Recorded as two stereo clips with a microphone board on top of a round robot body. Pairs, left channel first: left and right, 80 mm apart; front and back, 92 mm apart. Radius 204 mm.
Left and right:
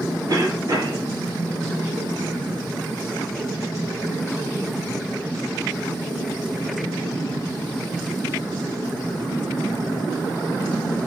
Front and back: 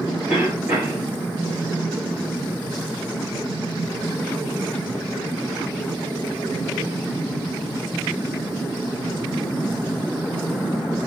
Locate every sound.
0.3 s a cough: 100° right, 1.9 m